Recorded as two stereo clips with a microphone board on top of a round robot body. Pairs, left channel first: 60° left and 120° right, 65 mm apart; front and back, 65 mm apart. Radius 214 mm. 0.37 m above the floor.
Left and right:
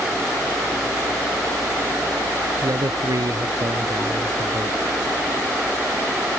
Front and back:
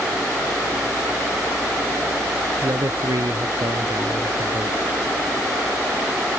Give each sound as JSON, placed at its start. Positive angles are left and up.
{"t": 2.6, "sound": "a man speaking", "azimuth_deg": -145}